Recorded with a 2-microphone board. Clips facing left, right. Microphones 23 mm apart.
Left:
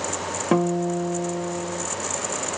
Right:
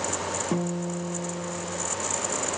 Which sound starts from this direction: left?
A guitar, at 0.5 s.